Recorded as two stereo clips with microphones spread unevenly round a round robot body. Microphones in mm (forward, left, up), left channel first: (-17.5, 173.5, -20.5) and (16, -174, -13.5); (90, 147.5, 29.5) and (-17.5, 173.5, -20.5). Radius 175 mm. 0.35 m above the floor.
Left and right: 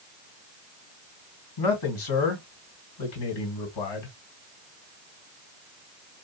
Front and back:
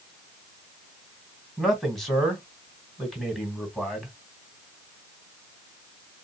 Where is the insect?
I don't hear an insect.